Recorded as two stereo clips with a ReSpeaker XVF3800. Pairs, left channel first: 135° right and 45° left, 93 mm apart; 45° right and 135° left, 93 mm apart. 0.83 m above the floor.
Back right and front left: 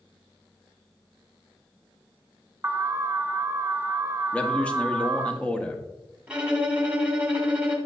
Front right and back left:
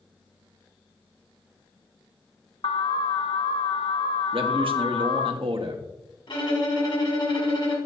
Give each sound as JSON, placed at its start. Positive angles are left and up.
{"t": 2.6, "sound": "an alarm", "azimuth_deg": -15, "distance_m": 0.5}
{"t": 4.3, "sound": "a man speaking", "azimuth_deg": 150, "distance_m": 1.1}
{"t": 6.3, "sound": "a violin", "azimuth_deg": -30, "distance_m": 1.8}